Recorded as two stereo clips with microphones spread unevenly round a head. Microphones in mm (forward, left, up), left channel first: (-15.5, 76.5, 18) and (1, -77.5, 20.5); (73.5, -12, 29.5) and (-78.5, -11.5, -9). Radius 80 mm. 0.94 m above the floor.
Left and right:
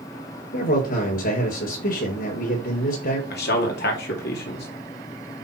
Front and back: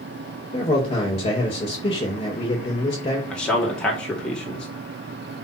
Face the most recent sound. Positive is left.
turn(degrees=90)